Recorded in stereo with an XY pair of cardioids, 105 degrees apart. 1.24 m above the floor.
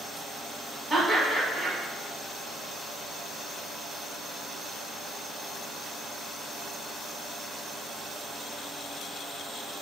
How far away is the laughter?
About 1.1 m.